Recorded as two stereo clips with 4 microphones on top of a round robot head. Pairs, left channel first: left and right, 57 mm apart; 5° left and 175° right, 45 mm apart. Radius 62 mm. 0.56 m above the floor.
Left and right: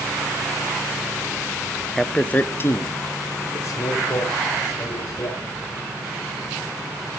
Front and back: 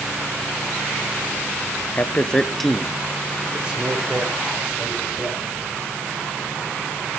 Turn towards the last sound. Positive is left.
turn(degrees=125)